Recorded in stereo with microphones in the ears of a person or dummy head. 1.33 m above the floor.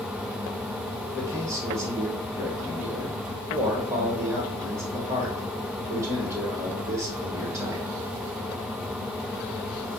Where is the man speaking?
15° right (ahead or behind), 1.2 m.